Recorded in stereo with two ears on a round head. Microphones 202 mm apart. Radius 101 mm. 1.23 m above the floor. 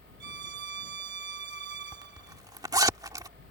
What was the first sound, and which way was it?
A violin, 50° right (ahead or behind).